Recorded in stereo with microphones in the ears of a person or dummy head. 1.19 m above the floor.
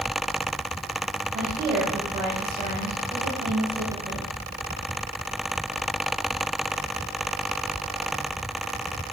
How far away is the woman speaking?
About 6 m.